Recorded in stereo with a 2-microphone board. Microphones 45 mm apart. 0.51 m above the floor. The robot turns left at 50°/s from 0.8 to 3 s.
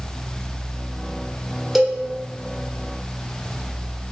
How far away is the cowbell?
About 0.5 m.